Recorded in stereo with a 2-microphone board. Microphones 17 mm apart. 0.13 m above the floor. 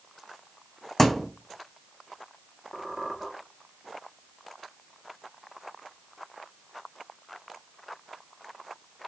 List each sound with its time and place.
1.0 s a thud: 15° left (ahead or behind), 0.6 m
2.7 s a squeak: 25° right (ahead or behind), 1.2 m